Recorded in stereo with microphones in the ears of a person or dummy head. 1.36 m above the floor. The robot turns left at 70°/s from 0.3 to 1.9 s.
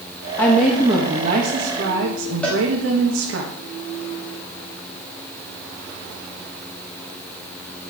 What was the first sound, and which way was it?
A woman speaking, 20° left.